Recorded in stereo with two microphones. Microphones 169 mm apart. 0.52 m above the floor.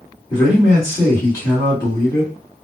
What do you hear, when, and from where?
0.3 s a man speaking: 20° left (ahead or behind), 1.7 m